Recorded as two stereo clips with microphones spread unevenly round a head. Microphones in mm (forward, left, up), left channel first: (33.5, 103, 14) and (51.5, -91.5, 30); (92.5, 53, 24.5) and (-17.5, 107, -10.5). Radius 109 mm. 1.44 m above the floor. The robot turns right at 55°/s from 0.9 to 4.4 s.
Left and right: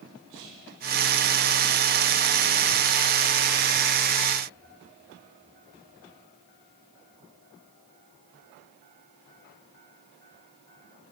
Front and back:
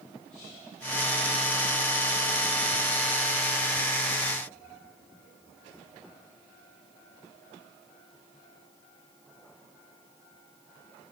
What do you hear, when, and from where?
0.3 s whispering: 100° right, 5 m